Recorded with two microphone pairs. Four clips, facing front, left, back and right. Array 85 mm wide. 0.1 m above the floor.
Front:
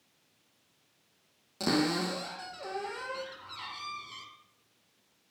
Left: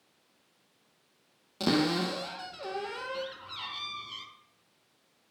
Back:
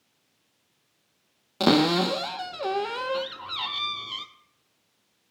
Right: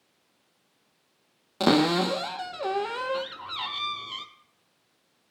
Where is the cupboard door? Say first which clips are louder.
Right 6 dB, back 8 dB; 135° right, 1.0 m.